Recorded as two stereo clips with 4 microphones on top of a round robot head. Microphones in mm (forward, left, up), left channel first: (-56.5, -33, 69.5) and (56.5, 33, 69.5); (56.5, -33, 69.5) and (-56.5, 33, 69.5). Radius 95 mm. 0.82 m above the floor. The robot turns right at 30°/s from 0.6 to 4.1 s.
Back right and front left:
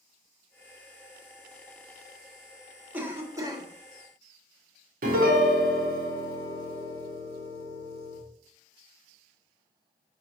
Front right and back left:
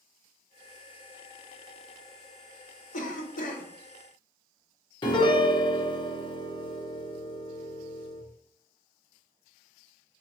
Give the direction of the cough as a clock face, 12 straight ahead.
2 o'clock.